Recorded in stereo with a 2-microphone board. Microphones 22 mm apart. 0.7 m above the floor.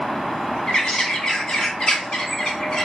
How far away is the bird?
About 1.0 m.